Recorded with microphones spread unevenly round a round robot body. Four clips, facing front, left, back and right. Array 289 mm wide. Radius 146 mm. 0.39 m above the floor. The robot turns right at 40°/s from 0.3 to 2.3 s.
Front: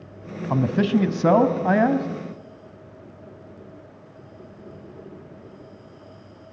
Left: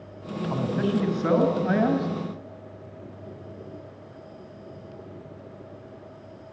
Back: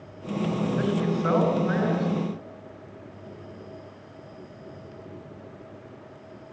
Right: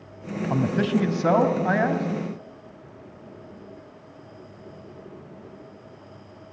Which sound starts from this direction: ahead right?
A man speaking, at 0.5 s.